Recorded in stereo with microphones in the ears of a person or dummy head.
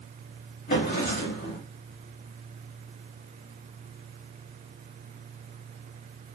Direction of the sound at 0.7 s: 40° left (ahead or behind).